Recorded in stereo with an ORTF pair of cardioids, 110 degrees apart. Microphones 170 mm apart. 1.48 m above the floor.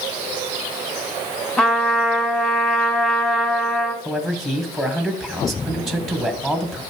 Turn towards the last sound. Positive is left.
turn(degrees=0)